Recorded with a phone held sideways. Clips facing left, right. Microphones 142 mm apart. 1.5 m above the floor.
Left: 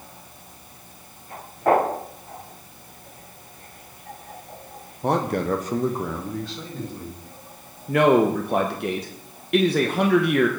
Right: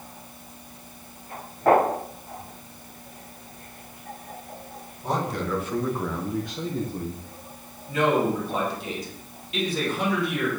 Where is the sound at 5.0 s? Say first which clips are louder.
Left 5 dB; 65° left (ahead or behind), 1.3 m; by 7.3 s 40° right (ahead or behind), 1.7 m.